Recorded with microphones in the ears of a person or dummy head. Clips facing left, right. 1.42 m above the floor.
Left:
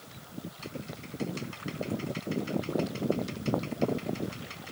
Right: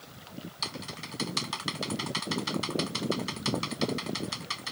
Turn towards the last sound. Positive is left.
turn(degrees=-75)  # may be behind; listen again after turning